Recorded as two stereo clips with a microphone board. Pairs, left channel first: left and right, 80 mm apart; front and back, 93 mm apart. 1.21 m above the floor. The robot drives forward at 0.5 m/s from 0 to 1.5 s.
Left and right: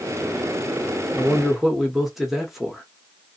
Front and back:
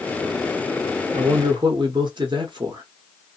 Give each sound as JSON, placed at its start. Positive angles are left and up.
{"t": 1.1, "sound": "a man speaking", "azimuth_deg": -175, "distance_m": 0.6}